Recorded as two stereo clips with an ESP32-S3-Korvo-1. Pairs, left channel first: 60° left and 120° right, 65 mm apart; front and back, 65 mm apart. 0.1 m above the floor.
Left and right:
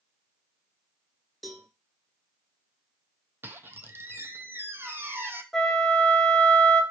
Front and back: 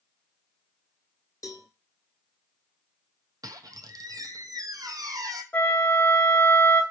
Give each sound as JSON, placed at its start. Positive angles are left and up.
{"t": 1.4, "sound": "a cowbell", "azimuth_deg": -30, "distance_m": 0.8}
{"t": 3.4, "sound": "a squeak", "azimuth_deg": -175, "distance_m": 0.5}
{"t": 5.5, "sound": "a flute", "azimuth_deg": -15, "distance_m": 0.6}